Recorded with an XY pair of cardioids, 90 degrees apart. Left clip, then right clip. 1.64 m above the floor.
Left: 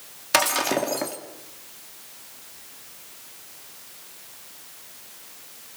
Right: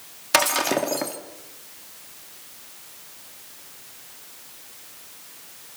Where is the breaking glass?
10° right, 2.5 m.